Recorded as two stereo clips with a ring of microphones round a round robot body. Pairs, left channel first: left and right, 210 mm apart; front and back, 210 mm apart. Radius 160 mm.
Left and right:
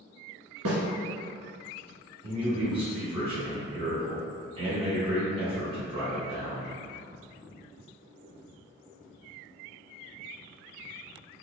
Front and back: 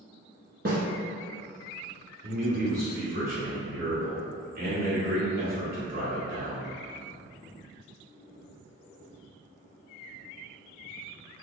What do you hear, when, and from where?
0.7 s a snare drum: 120° right, 1.0 m
2.2 s a man speaking: 150° right, 1.4 m